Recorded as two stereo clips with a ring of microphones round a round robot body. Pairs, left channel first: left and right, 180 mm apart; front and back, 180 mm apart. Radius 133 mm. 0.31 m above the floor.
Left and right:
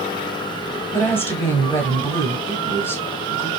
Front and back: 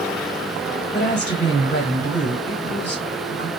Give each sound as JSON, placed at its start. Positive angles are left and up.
{"t": 0.9, "sound": "a woman speaking", "azimuth_deg": 35, "distance_m": 1.4}